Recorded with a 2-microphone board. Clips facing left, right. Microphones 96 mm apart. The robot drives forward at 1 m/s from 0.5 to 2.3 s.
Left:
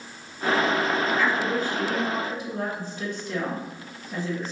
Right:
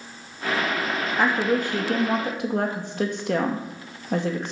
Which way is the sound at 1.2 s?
55° right (ahead or behind).